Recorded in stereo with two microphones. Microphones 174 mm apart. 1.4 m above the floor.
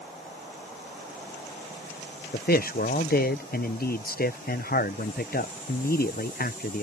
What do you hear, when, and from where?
2.3 s a man speaking: 55° left (ahead or behind)